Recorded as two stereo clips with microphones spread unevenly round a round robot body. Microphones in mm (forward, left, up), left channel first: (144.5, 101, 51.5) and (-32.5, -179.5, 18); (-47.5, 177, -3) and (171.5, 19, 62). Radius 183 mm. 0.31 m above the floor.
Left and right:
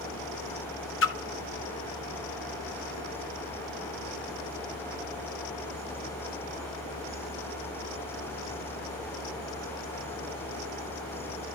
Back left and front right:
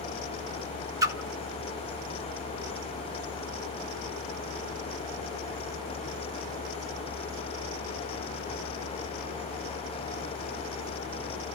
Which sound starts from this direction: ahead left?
A splash, at 1.0 s.